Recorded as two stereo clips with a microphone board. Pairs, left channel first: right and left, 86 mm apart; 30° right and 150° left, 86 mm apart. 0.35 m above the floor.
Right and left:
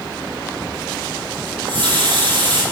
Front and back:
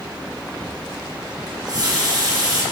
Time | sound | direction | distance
1.5 | a running tap | 110° left | 4 m